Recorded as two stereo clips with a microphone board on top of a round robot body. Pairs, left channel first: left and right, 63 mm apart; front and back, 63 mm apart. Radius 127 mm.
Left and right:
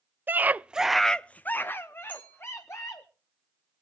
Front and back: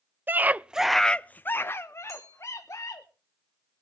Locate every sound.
0.3 s a scream: 135° right, 0.7 m; by 3.1 s 40° left, 1.5 m
2.1 s a clink: 155° left, 9.5 m